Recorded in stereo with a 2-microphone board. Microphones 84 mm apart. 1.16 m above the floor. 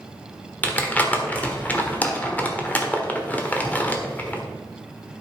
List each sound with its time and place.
0.6 s crumpling: 20° left (ahead or behind), 1.3 m